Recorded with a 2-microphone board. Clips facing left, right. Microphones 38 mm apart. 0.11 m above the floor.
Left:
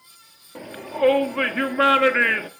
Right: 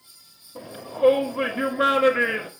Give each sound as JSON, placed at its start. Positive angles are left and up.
{"t": 0.6, "sound": "a shout", "side_deg": 55, "distance_m": 1.8}